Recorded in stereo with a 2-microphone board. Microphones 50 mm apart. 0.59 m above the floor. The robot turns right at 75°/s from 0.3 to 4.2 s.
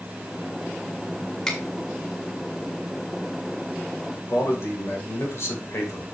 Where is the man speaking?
65° left (ahead or behind), 2.5 m.